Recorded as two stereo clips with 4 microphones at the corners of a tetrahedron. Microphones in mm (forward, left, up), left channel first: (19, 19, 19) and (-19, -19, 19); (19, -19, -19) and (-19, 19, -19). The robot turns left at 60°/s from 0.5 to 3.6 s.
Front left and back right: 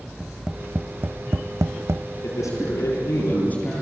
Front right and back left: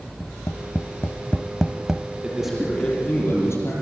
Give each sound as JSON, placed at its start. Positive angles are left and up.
{"t": 0.2, "sound": "tapping", "azimuth_deg": -60, "distance_m": 0.6}
{"t": 2.2, "sound": "a man speaking", "azimuth_deg": 60, "distance_m": 9.0}